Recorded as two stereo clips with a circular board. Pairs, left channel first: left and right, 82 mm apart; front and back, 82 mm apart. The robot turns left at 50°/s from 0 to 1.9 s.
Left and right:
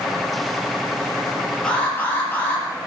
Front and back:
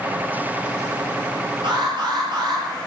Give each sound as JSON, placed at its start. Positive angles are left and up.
{"t": 1.6, "sound": "an alarm", "azimuth_deg": 170, "distance_m": 5.5}